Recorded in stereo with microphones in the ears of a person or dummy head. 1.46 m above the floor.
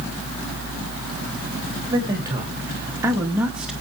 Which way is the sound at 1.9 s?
20° right (ahead or behind).